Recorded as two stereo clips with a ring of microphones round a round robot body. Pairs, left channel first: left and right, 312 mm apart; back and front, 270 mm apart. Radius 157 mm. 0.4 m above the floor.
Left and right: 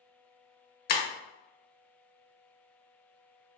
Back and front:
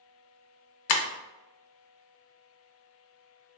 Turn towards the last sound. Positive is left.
turn(degrees=150)